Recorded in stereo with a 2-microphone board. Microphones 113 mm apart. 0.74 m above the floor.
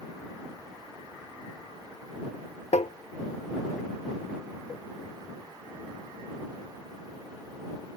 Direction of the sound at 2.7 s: 75° left (ahead or behind).